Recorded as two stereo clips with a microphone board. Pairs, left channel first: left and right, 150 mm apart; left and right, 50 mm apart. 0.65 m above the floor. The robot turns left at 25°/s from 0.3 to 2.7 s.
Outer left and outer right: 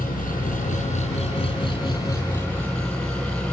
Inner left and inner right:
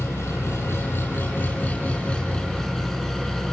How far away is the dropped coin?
No dropped coin in this recording.